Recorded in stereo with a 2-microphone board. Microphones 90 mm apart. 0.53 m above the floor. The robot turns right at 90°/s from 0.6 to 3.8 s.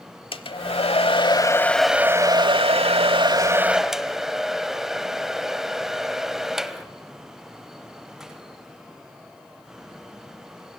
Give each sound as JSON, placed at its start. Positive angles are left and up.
{"t": 0.3, "sound": "a hair dryer", "azimuth_deg": 65, "distance_m": 1.0}